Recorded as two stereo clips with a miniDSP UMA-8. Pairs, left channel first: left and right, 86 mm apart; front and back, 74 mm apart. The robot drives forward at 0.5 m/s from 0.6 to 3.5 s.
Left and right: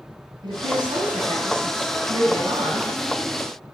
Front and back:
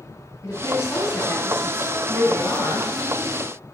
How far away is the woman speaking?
About 6 m.